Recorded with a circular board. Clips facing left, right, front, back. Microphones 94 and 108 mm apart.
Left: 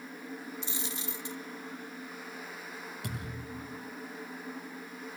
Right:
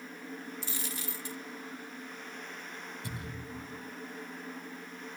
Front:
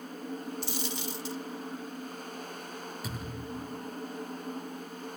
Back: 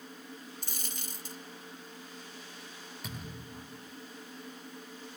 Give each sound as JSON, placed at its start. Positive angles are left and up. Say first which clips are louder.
{"t": 0.6, "sound": "a dropped coin", "louder": "left 1 dB, front 10 dB", "azimuth_deg": 155, "distance_m": 0.8}
{"t": 3.0, "sound": "a thud", "louder": "left 2 dB, front 2 dB", "azimuth_deg": 85, "distance_m": 9.0}